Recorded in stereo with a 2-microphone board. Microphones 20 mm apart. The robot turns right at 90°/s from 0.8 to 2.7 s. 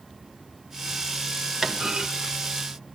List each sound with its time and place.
1.6 s a clunk: 150° right, 1.7 m; by 2.1 s 110° right, 1.7 m